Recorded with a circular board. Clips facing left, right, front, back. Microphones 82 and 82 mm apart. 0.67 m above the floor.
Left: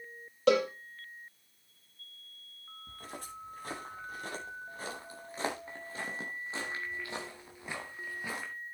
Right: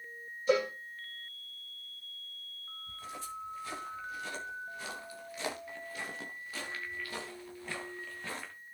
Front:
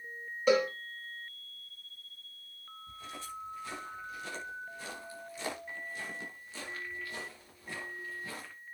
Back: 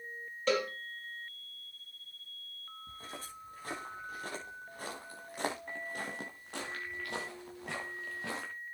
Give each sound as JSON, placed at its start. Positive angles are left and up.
{"t": 0.5, "sound": "a cowbell", "azimuth_deg": 80, "distance_m": 6.0}
{"t": 2.9, "sound": "footsteps", "azimuth_deg": 130, "distance_m": 7.5}